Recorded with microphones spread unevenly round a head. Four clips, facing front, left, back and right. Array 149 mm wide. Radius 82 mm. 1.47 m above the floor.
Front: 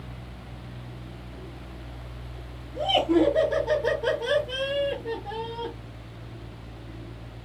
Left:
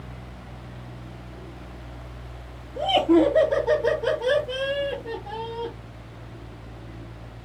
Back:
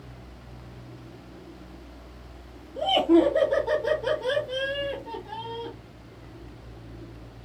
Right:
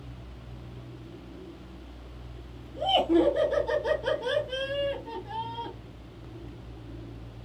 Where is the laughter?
95° left, 2.5 m; by 5.7 s 40° left, 1.3 m.